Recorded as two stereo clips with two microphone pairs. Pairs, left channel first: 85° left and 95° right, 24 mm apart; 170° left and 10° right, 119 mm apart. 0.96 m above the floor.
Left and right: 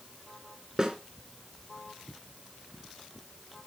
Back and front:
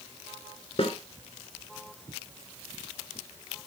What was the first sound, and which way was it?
A snare drum, 155° right.